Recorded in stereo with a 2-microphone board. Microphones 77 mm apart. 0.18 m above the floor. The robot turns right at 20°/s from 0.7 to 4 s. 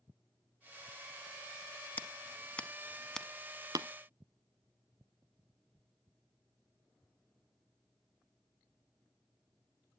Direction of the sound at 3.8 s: 55° right (ahead or behind).